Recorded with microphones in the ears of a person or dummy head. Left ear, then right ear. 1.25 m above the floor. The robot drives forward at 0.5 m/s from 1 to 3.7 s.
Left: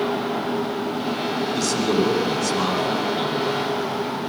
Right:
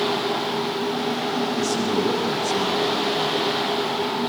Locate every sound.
1.5 s a man speaking: 85° left, 10 m; by 3.4 s 80° left, 10 m